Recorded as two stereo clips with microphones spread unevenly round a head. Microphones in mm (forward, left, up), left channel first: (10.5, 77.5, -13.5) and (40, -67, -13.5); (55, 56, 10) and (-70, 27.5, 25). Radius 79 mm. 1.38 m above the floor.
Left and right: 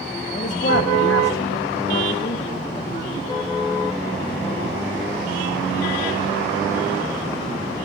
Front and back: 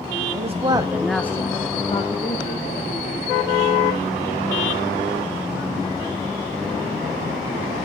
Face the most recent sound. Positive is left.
turn(degrees=45)